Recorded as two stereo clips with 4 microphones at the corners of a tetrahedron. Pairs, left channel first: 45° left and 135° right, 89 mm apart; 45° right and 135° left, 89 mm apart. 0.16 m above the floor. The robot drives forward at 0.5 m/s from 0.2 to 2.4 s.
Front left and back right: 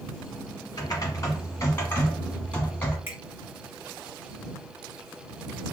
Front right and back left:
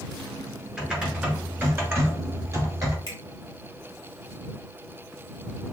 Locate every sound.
0.8 s typing on a keyboard: 55° left, 1.3 m; by 3.0 s 110° left, 1.2 m
3.1 s a finger snap: 160° left, 2 m